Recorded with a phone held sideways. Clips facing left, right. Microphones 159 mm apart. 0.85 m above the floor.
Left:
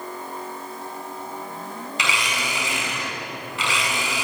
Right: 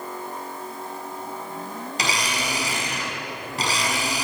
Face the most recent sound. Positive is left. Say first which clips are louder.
# right 1 dB
turn(degrees=-40)  # may be behind; listen again after turning